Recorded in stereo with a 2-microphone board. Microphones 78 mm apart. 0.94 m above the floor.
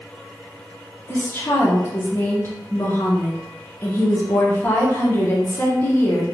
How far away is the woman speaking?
About 0.7 m.